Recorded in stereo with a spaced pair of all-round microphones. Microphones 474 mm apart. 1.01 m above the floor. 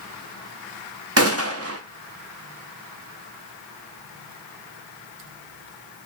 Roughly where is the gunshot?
Right.